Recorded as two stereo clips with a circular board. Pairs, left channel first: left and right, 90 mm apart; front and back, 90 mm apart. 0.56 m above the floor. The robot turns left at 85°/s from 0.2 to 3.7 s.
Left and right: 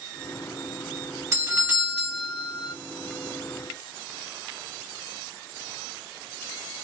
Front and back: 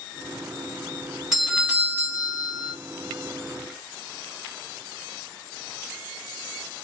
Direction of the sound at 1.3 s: 100° right.